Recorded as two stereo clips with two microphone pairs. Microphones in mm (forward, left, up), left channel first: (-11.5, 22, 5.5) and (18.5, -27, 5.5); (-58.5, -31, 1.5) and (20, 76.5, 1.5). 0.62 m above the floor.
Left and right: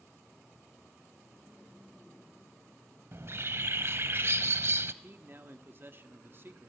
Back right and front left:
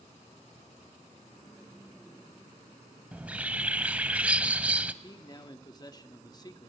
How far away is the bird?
About 0.7 m.